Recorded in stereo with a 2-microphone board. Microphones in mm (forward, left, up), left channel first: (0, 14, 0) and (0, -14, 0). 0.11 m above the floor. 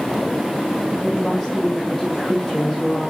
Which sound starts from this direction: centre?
A woman speaking, at 1.0 s.